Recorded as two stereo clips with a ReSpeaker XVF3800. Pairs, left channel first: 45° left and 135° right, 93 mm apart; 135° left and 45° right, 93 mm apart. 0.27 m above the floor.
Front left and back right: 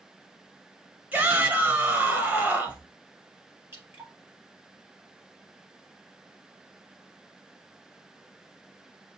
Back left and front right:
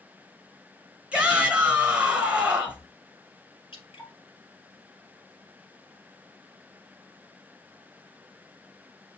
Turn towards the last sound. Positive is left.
turn(degrees=160)